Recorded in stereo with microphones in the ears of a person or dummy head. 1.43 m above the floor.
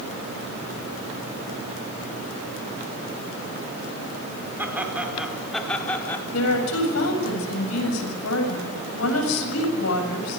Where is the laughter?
10° right (ahead or behind), 4.5 m; by 6.2 s 10° left (ahead or behind), 4 m.